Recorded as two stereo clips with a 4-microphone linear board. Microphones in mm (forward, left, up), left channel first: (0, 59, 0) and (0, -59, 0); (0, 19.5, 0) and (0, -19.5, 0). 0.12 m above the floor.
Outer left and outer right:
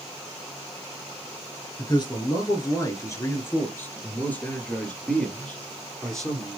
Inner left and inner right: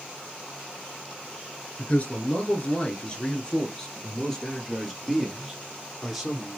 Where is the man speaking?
40° left (ahead or behind), 1.8 m; by 6.6 s centre (ahead or behind), 3 m.